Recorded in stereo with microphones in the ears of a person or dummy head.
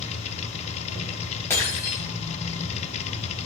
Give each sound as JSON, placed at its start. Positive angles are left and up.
{"t": 0.0, "sound": "a machine running", "side_deg": 35, "distance_m": 0.7}
{"t": 1.5, "sound": "breaking glass", "side_deg": 15, "distance_m": 4.0}